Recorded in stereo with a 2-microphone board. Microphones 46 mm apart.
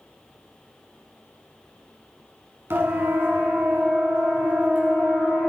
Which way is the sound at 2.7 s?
60° right (ahead or behind).